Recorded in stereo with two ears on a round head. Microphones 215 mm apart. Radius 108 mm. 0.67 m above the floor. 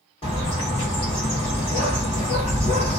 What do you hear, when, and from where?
0.2 s a bird: 25° left (ahead or behind), 1.3 m